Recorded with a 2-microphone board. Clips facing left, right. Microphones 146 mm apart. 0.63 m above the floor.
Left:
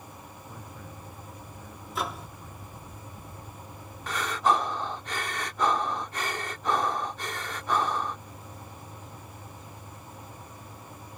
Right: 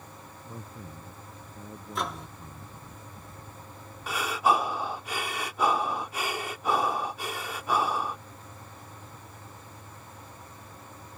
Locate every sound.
0.4 s a man speaking: 30° right (ahead or behind)
1.9 s a microwave: centre (ahead or behind)
4.1 s breathing: 10° right (ahead or behind)